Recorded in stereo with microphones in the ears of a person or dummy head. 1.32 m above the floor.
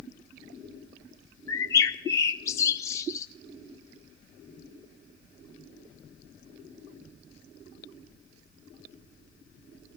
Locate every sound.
1.5 s a bird: 20° left (ahead or behind), 0.6 m